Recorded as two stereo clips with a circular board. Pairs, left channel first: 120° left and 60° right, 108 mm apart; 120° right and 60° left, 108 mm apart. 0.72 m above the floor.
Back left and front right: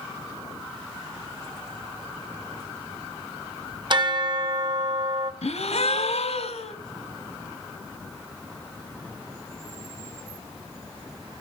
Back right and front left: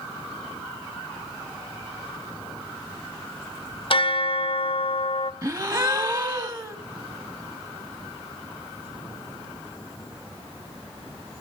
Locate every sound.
3.9 s a bell: 95° right, 1.0 m
5.4 s a gasp: 115° left, 1.6 m